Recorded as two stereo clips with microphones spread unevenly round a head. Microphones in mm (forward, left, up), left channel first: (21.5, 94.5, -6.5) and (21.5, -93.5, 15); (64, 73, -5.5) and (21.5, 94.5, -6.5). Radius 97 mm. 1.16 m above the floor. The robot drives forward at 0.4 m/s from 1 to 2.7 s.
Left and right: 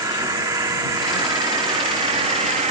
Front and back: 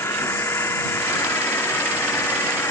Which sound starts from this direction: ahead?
An insect, at 0.0 s.